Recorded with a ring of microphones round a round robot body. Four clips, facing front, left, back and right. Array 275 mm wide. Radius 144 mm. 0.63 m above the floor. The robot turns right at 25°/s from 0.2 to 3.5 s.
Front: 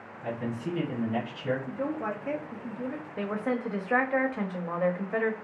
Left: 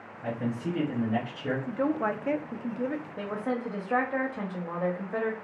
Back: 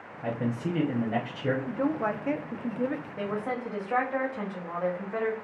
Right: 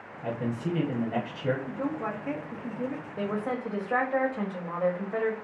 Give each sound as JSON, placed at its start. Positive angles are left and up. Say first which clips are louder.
{"t": 0.2, "sound": "a man speaking", "louder": "even, back 3 dB", "azimuth_deg": 180, "distance_m": 1.0}
{"t": 1.7, "sound": "a woman speaking", "louder": "left 4 dB, back 4 dB", "azimuth_deg": 115, "distance_m": 0.6}
{"t": 3.2, "sound": "a woman speaking", "louder": "right 3 dB, front 4 dB", "azimuth_deg": -15, "distance_m": 1.0}